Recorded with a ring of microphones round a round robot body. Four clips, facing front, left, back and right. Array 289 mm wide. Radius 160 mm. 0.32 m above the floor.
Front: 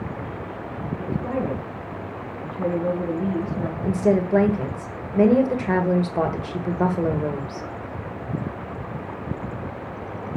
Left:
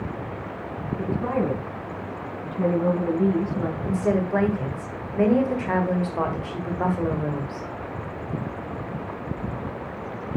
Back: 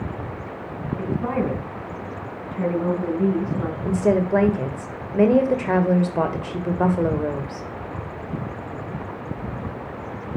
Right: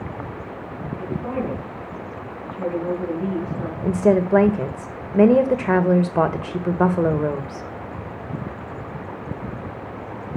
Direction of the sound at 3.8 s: 100° right.